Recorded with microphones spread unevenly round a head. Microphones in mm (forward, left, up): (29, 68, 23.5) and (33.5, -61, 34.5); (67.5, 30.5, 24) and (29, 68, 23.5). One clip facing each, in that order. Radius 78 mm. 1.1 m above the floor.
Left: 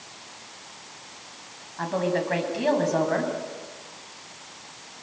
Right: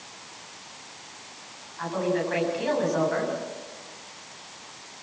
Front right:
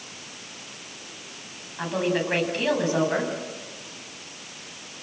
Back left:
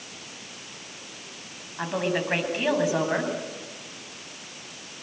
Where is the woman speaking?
55° left, 7.5 m.